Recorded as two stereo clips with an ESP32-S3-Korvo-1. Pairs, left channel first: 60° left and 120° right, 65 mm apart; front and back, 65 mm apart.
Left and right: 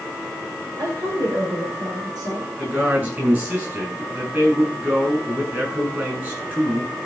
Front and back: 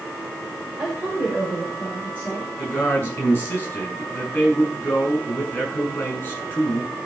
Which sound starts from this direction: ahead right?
A man speaking, at 2.6 s.